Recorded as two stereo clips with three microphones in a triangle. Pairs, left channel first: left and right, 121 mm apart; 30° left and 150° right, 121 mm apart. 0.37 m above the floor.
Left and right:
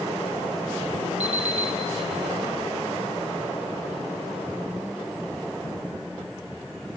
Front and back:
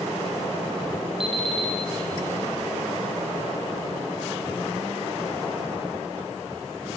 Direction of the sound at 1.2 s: 110° right.